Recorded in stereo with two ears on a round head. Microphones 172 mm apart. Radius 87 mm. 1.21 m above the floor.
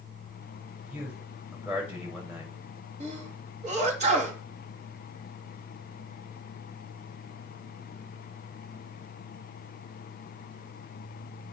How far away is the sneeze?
About 2.5 m.